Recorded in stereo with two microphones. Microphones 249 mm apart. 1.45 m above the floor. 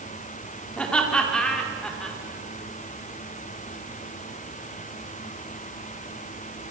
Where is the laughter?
5° left (ahead or behind), 4 m.